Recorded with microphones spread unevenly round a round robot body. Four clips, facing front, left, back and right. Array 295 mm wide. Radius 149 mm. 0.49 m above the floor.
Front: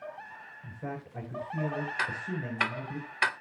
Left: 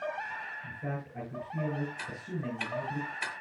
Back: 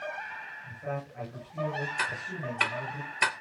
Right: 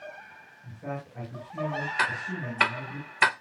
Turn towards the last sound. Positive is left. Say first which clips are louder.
# right 8 dB, even
turn(degrees=-90)